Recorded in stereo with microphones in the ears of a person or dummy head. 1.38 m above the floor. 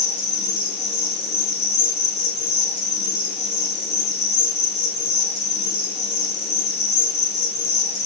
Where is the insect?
35° left (ahead or behind), 6.5 m.